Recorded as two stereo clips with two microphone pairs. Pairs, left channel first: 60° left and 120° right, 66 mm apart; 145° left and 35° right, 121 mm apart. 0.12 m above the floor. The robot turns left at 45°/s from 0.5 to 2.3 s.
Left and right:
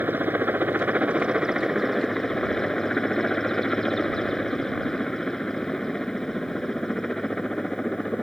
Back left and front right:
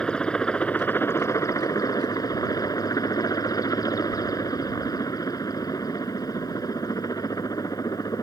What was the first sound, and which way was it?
A helicopter, 145° right.